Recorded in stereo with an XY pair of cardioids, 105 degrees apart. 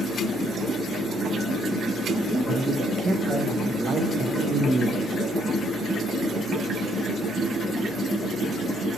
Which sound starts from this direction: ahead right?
A man speaking, at 2.3 s.